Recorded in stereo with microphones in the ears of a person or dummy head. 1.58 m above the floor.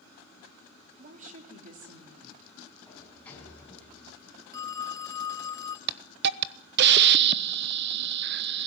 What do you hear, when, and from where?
1.0 s a woman speaking: 45° right (ahead or behind), 3.5 m
2.9 s a sliding door: 10° left (ahead or behind), 6 m
4.5 s a phone ringing: 15° left (ahead or behind), 0.7 m
5.9 s a hiss: 70° right (ahead or behind), 1.0 m